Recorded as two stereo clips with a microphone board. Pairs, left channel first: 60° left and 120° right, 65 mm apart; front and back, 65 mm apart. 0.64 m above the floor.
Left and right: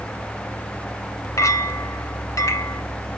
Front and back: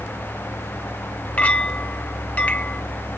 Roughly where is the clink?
Ahead left.